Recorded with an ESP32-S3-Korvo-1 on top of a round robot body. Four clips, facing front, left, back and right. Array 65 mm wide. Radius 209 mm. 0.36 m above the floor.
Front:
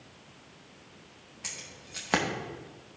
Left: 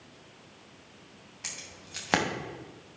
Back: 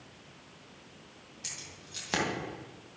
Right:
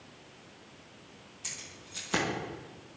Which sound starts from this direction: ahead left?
Keys jangling, at 1.4 s.